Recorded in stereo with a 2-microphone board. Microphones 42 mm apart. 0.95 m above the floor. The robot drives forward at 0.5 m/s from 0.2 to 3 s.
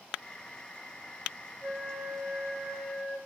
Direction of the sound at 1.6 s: 40° right (ahead or behind).